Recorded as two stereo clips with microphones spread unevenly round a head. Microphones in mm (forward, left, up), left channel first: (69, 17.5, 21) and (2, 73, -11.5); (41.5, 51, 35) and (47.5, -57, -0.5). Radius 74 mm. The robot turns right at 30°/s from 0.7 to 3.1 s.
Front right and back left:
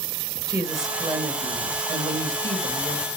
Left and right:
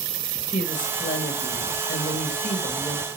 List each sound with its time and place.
0.5 s a woman speaking: 90° left, 2.0 m; by 3.1 s 160° left, 2.0 m